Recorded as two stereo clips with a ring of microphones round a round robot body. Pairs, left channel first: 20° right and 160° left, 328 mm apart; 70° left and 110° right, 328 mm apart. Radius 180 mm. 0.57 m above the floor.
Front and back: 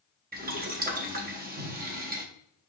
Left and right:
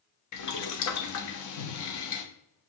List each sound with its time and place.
0.3 s boiling: 95° left, 0.8 m